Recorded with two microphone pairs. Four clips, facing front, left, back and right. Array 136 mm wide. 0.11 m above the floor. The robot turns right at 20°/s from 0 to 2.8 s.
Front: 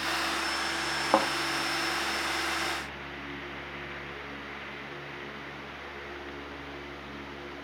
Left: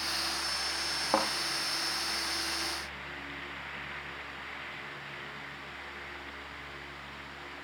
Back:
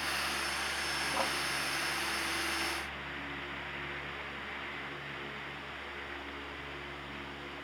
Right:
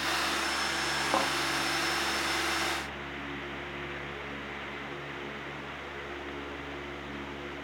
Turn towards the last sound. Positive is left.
turn(degrees=45)